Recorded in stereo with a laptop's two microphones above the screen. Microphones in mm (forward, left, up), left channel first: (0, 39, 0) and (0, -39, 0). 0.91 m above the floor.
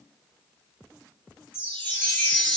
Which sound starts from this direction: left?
A chime, at 1.5 s.